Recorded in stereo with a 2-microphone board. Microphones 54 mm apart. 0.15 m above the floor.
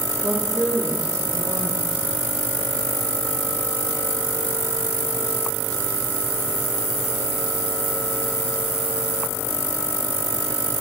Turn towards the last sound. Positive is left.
turn(degrees=-75)  # may be behind; listen again after turning